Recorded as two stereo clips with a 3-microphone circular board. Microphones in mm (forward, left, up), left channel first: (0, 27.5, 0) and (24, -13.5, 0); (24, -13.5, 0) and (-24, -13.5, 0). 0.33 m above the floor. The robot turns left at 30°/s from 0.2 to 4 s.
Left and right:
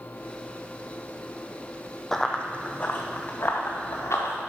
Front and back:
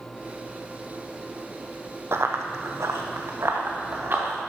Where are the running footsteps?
160° right, 0.7 m; by 4.3 s 130° left, 2.5 m.